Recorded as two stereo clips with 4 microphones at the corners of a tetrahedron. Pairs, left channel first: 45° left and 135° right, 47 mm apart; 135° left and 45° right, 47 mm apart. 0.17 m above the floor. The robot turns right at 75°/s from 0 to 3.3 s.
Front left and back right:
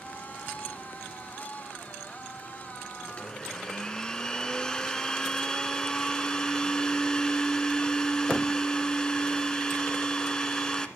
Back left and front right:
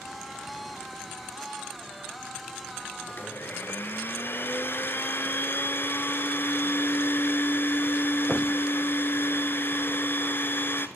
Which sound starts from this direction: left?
A blender, at 3.1 s.